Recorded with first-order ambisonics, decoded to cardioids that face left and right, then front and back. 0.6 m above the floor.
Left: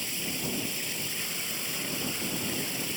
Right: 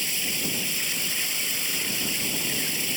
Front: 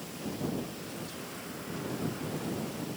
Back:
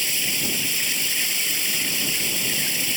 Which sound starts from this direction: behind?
Running water, at 0.0 s.